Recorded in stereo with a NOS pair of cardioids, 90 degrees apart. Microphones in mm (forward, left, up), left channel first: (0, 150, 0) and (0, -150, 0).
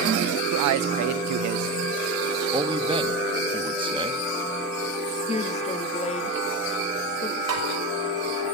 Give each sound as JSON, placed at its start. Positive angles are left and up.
{"t": 0.5, "sound": "a man speaking", "azimuth_deg": -65, "distance_m": 0.7}
{"t": 2.5, "sound": "a man speaking", "azimuth_deg": -15, "distance_m": 1.6}
{"t": 5.3, "sound": "a woman speaking", "azimuth_deg": 20, "distance_m": 1.7}
{"t": 7.5, "sound": "tapping", "azimuth_deg": -55, "distance_m": 6.0}